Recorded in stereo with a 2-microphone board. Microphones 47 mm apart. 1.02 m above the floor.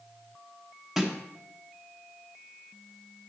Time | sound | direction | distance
1.0 | a snare drum | 5° right (ahead or behind) | 0.9 m